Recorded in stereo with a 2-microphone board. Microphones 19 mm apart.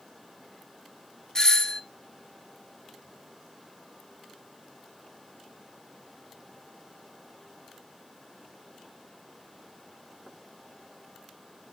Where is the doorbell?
30° left (ahead or behind), 1.9 m.